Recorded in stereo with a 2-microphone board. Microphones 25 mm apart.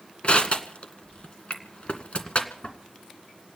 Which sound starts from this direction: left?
Crushing, at 0.2 s.